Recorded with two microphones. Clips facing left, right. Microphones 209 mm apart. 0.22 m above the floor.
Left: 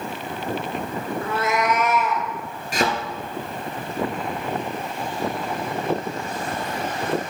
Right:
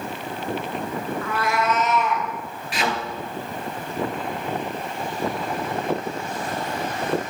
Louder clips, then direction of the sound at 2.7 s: Left 4 dB; 45° left (ahead or behind).